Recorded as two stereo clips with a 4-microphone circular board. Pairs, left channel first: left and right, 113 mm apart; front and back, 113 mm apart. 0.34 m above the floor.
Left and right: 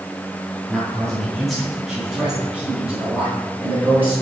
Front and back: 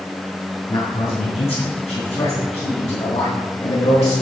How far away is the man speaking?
About 3 m.